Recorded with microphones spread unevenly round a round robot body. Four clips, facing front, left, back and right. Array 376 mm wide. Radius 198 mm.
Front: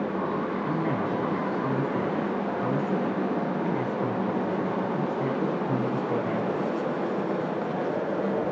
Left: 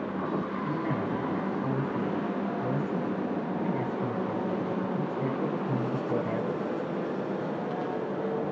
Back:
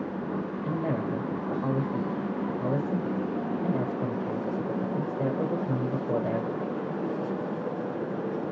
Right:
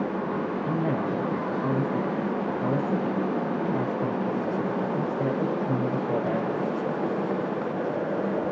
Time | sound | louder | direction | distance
0.7 | a man speaking | right 5 dB, even | 140° right | 1.7 m